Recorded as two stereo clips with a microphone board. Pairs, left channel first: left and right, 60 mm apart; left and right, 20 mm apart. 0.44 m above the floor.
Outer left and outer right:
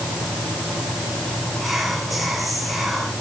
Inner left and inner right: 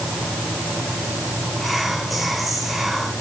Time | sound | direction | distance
1.6 | whispering | centre (ahead or behind) | 2.0 m